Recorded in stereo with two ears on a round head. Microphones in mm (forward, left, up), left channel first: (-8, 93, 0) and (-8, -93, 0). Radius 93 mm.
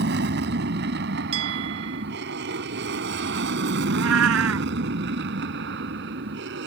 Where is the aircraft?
50° right (ahead or behind); by 6.7 s 55° right (ahead or behind).